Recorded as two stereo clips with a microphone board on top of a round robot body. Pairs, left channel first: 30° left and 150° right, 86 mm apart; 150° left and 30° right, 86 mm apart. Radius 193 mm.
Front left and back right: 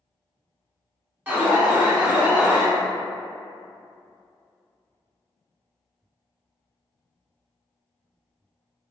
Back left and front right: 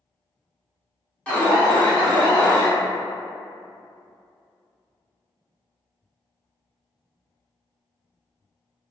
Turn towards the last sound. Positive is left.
turn(degrees=-160)